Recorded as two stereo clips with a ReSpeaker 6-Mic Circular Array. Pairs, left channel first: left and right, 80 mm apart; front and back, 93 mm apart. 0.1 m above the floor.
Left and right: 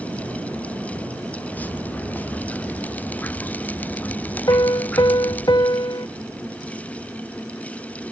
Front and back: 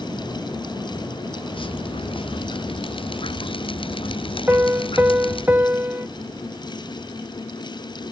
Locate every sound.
1.5 s dripping: 20° left
4.5 s a piano: 110° left